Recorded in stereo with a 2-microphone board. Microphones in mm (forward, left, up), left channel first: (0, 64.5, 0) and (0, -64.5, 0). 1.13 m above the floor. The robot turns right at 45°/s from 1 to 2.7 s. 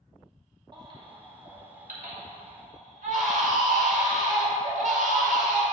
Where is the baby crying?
145° right, 1.3 m; by 5.6 s 70° right, 1.3 m.